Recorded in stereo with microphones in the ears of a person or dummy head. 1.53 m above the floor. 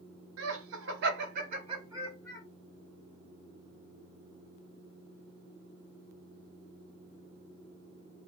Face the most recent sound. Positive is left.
turn(degrees=5)  # may be behind; listen again after turning